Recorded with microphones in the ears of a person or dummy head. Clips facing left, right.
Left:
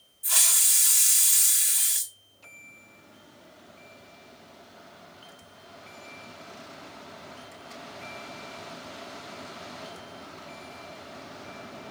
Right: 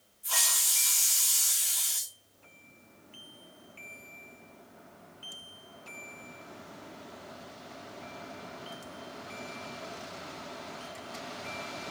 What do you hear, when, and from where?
0.2 s a hiss: 25° left (ahead or behind), 1.4 m